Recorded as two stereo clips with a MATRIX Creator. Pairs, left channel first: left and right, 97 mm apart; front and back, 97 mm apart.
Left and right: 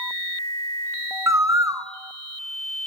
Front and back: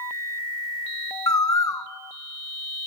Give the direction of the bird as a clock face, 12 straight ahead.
1 o'clock.